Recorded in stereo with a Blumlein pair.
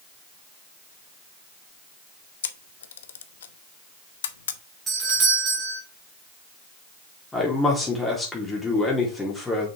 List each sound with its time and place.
2.4 s a camera shutter: 60° left, 0.7 m
4.9 s a doorbell: 15° right, 3 m
7.3 s a man speaking: 10° left, 3.5 m